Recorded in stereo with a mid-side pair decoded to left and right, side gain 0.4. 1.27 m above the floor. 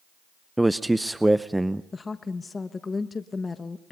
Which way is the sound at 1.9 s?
35° left.